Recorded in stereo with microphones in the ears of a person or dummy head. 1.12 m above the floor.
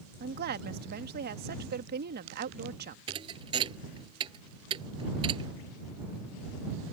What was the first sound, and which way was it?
A woman speaking, 50° right (ahead or behind).